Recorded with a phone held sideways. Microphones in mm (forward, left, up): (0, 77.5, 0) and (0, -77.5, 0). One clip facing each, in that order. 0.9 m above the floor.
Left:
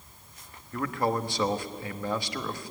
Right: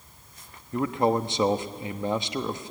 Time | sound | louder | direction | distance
0.7 | a man speaking | right 5 dB | 25° right (ahead or behind) | 1.0 m